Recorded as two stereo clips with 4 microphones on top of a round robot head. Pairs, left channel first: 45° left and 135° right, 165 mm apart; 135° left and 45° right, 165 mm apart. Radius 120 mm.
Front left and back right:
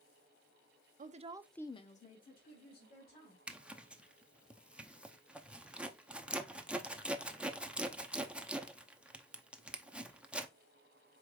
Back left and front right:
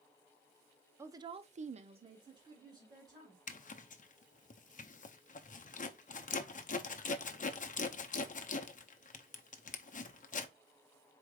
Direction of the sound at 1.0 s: 115° right.